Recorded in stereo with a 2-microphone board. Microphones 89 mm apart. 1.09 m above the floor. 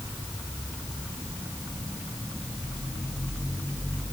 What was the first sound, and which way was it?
Only background noise.